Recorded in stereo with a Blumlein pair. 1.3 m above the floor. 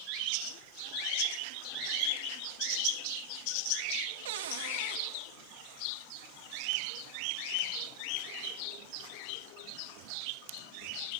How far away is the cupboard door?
About 1.7 m.